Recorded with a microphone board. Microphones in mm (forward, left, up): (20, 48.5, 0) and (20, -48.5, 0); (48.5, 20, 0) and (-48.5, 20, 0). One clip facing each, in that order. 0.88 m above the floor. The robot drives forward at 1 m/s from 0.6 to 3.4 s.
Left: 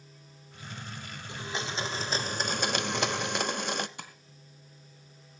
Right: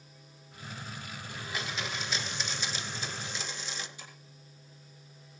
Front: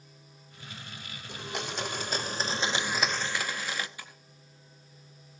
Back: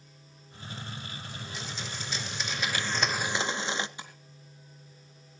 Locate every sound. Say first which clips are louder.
1.3 s a blender: left 3 dB, front 8 dB; 25° left, 2.0 m; by 3.9 s 115° left, 0.9 m
4.0 s tapping: left 5 dB, back 2 dB; 115° left, 3 m